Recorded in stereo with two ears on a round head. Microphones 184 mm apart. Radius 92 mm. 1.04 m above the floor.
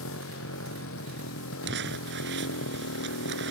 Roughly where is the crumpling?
Right.